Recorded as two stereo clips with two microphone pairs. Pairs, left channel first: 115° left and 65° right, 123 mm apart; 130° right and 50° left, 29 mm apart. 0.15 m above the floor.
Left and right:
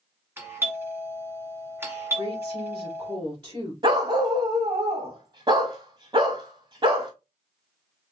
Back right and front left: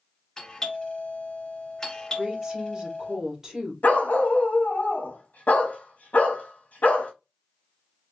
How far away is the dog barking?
About 1.3 m.